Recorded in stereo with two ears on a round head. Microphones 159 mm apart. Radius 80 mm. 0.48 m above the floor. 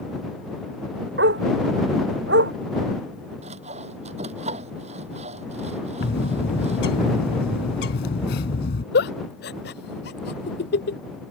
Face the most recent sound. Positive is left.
turn(degrees=65)  # may be behind; listen again after turning